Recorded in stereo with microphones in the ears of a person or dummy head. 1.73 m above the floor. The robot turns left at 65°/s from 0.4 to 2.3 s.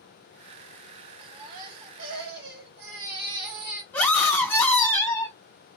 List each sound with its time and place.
1.2 s a baby crying: 20° right, 1.4 m; by 3.8 s 95° right, 1.4 m
3.9 s a scream: 15° left (ahead or behind), 1.7 m